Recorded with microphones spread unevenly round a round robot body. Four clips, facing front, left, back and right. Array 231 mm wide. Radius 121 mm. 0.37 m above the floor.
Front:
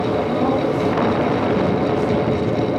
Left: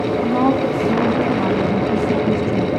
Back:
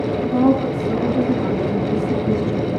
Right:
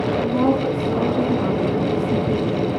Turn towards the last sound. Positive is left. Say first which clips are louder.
# left 3 dB, back 2 dB
turn(degrees=130)